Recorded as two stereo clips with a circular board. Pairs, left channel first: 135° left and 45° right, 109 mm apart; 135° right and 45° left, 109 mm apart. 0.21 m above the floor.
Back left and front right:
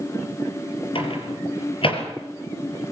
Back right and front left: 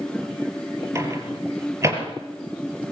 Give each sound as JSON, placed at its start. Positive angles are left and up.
{"t": 0.9, "sound": "a microwave", "azimuth_deg": 105, "distance_m": 4.5}